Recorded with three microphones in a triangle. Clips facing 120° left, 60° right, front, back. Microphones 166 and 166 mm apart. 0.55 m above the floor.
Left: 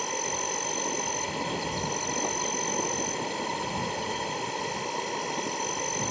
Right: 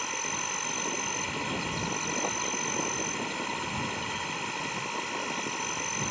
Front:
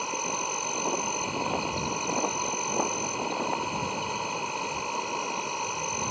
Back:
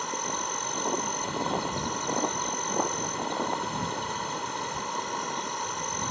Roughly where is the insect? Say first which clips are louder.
Left 5 dB, front 1 dB; left.